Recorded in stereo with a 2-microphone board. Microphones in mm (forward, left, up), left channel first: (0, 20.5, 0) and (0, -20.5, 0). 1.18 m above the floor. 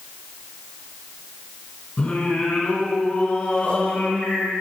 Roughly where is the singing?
Left.